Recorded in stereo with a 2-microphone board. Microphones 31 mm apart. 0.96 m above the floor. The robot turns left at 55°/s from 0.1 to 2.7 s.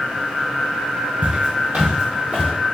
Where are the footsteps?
50° right (ahead or behind), 1.4 m.